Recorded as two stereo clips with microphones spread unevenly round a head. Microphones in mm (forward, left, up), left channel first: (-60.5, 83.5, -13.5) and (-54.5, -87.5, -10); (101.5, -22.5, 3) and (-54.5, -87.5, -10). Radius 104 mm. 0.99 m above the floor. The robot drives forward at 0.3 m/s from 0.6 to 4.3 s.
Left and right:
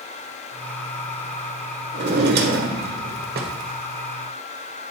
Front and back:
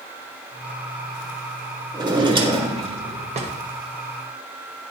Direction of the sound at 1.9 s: 90° right.